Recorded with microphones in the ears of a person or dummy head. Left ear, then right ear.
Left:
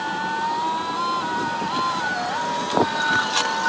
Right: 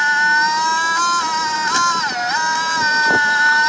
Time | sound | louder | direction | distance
0.0 | a machine running | right 11 dB | 65° right (ahead or behind) | ?